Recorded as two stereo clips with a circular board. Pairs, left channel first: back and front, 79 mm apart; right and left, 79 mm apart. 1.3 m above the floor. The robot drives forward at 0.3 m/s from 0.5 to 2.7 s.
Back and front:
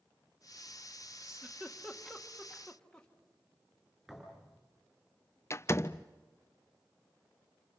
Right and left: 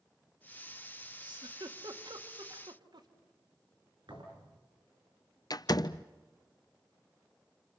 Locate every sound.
1.2 s a giggle: 85° left, 1.6 m; by 3.1 s 100° left, 1.6 m
4.1 s a thud: 85° left, 5.5 m
5.5 s a door slam: 125° right, 0.5 m